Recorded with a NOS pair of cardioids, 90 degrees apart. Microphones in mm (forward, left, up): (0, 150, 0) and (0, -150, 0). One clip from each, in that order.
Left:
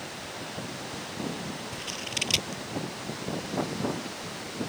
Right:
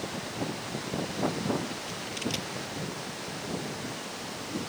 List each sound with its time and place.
1.7 s scissors: 70° left